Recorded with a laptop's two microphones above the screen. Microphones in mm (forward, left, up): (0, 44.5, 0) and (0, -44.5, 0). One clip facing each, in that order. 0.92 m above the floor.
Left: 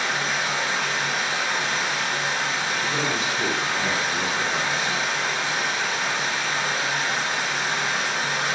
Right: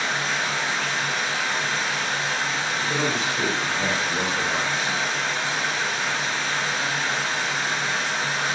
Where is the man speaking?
80° right, 1.6 m.